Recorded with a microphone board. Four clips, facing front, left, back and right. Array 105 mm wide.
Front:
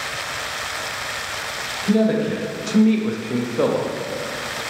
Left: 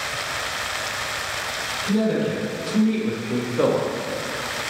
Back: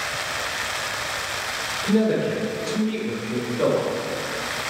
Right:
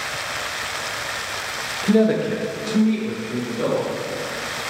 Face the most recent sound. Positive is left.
turn(degrees=45)